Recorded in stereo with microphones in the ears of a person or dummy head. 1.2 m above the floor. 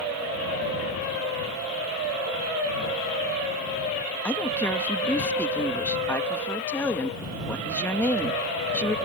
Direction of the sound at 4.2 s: 5° left (ahead or behind).